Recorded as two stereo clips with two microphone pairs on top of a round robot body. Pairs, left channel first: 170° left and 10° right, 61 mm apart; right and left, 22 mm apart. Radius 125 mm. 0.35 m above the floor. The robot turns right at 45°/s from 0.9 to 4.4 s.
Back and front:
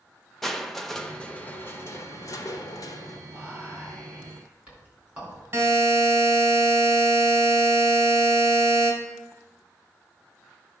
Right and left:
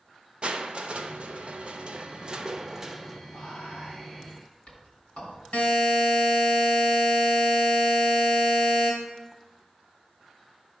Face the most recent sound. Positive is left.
turn(degrees=-60)